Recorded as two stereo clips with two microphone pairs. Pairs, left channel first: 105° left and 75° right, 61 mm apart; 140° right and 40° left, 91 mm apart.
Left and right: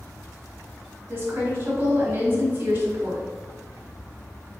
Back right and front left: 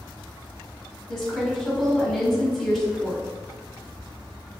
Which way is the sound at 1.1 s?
55° right.